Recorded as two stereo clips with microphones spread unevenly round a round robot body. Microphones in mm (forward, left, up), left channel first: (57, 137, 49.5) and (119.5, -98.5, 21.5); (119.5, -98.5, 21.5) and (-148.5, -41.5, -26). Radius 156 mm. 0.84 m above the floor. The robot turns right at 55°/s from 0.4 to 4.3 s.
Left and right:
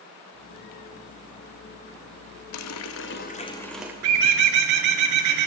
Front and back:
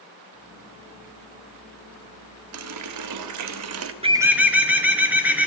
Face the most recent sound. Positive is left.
turn(degrees=-105)